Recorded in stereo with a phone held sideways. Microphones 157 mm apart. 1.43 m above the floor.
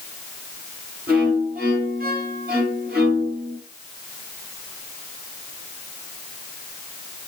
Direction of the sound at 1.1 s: 75° right (ahead or behind).